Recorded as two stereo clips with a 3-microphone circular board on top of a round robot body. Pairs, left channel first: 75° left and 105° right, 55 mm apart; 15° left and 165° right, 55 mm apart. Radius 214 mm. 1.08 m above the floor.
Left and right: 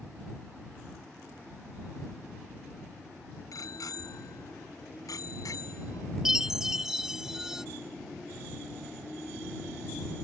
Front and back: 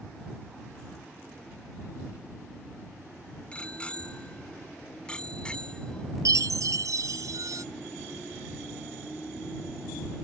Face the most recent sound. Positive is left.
turn(degrees=175)